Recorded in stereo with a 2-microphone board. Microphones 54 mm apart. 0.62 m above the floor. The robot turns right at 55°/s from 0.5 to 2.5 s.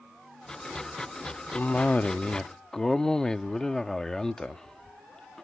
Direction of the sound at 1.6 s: 110° left.